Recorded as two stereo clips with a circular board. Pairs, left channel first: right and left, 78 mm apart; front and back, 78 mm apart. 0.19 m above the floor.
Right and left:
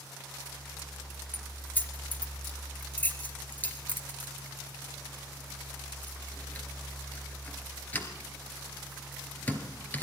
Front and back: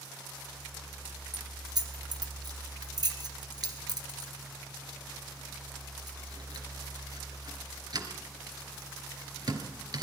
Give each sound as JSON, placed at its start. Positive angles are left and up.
{"t": 1.3, "sound": "keys jangling", "azimuth_deg": -155, "distance_m": 2.5}